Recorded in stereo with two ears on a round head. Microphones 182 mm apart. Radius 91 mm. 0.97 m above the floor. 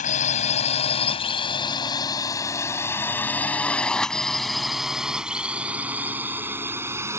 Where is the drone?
40° left (ahead or behind); by 7.2 s 15° right (ahead or behind).